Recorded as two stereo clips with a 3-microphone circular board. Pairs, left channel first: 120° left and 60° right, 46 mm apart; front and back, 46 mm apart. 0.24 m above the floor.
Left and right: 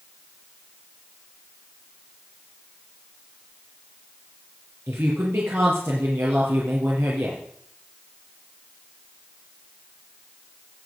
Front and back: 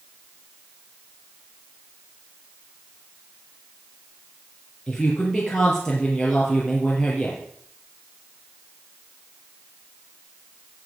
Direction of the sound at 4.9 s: 80° right.